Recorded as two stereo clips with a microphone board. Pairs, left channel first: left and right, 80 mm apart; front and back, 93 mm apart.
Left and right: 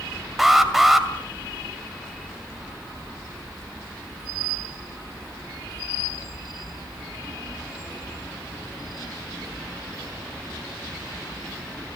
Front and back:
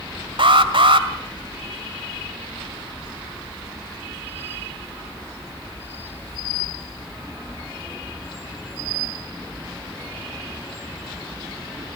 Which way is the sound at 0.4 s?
175° right.